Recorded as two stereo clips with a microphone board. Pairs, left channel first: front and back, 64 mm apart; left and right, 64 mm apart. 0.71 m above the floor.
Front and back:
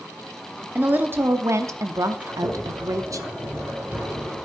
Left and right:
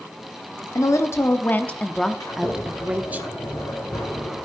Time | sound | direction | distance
0.8 | a woman speaking | 120° left | 1.1 m
2.2 | a sliding door | 110° left | 4 m